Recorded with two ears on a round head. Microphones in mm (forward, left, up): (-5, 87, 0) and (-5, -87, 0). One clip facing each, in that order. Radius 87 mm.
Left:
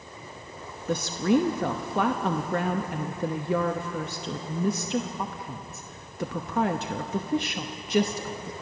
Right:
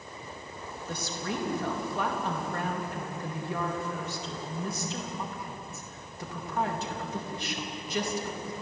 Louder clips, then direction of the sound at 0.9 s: Left 12 dB; 50° left (ahead or behind).